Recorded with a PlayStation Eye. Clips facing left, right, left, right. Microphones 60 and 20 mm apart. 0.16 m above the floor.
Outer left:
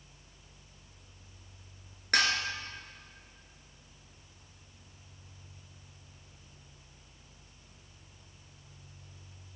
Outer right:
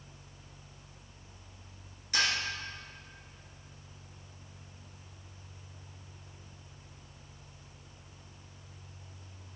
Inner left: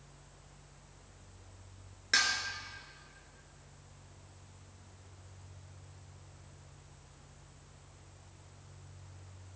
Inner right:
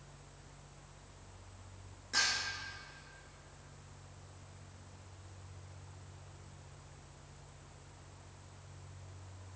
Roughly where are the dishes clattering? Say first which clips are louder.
Outer left 3 dB, inner left 4 dB; left.